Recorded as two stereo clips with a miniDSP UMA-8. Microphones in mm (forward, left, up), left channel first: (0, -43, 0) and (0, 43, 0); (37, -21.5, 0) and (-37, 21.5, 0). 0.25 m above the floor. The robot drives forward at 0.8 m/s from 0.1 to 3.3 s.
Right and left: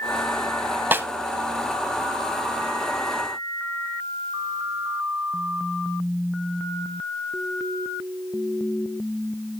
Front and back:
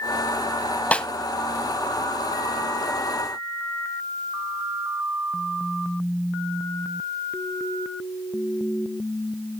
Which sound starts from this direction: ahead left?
A snare drum, at 0.9 s.